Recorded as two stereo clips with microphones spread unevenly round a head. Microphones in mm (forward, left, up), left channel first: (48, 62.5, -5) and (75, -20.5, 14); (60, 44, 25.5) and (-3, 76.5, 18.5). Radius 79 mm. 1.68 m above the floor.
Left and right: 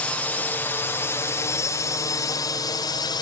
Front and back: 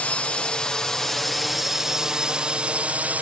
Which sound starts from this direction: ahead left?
A drone, at 0.0 s.